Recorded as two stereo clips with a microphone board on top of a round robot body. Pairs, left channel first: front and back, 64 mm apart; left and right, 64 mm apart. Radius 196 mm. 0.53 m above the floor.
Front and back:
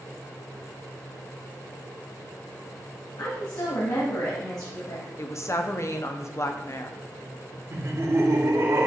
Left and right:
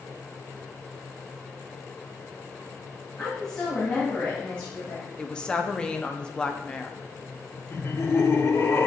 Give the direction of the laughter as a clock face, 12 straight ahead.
7 o'clock.